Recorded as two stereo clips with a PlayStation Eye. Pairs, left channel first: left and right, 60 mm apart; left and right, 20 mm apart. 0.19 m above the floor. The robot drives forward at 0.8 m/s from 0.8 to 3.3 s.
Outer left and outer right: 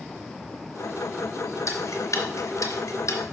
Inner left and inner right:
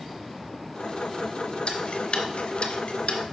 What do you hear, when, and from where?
1.7 s ticking: 55° left (ahead or behind), 2 m